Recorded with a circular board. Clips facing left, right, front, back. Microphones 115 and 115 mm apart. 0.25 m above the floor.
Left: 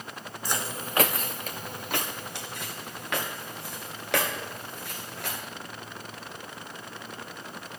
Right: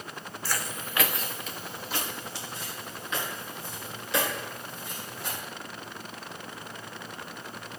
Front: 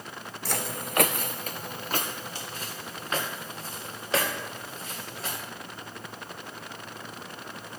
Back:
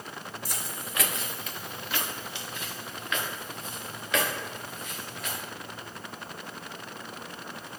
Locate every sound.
0.5 s footsteps: 15° left, 0.6 m; by 5.4 s 60° left, 5 m